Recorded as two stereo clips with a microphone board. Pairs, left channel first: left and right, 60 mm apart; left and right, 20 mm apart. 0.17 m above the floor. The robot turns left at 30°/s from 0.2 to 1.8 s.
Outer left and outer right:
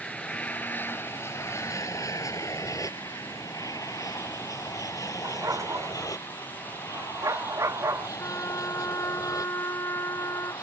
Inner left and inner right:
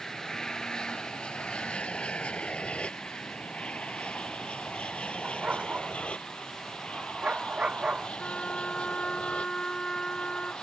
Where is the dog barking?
60° right (ahead or behind).